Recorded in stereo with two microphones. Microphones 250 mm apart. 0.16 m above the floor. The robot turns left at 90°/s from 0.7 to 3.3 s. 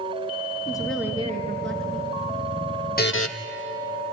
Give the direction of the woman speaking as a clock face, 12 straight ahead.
11 o'clock.